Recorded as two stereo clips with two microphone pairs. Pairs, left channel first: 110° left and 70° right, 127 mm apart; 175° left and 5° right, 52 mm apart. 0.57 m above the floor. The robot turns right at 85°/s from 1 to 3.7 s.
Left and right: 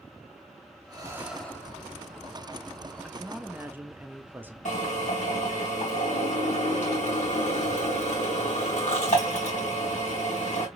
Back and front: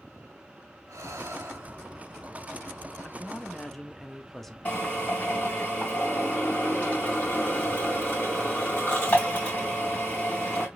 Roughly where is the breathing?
Ahead.